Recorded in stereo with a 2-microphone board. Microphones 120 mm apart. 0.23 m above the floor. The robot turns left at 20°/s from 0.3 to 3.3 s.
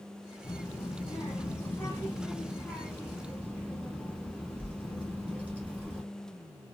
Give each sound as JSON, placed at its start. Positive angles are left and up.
{"t": 0.4, "sound": "a child speaking", "azimuth_deg": 45, "distance_m": 1.8}